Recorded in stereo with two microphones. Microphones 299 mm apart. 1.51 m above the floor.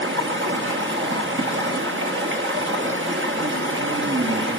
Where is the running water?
40° right (ahead or behind), 1.3 m.